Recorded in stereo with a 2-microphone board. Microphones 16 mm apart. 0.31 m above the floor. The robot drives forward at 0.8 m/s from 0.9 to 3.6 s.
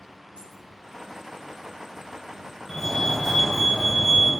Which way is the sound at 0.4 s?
75° right (ahead or behind).